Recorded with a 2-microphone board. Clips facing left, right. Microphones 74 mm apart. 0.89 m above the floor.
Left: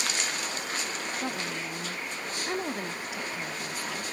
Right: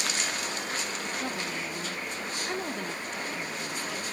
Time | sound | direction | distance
1.2 | a woman speaking | 5° left (ahead or behind) | 0.6 m